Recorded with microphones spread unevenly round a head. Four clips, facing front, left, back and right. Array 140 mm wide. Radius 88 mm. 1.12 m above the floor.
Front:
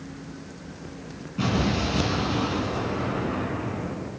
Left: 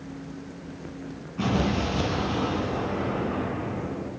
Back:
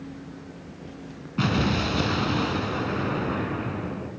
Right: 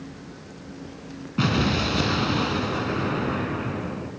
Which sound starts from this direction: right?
An explosion, at 1.4 s.